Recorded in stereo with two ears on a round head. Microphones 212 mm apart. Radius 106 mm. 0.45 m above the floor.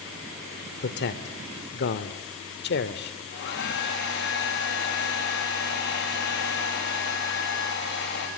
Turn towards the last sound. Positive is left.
turn(degrees=50)  # may be behind; listen again after turning